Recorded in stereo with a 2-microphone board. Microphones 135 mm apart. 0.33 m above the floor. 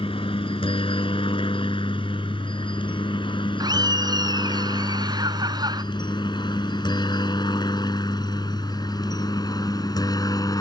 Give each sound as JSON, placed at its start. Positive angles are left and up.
{"t": 0.0, "sound": "a helicopter", "side_deg": 40}
{"t": 3.6, "sound": "laughter", "side_deg": -30}